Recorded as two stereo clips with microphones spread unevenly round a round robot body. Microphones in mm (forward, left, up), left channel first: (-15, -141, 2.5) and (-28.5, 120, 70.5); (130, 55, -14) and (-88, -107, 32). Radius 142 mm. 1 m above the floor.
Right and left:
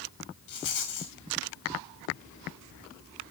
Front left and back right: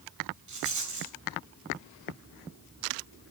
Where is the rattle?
100° right, 4 m.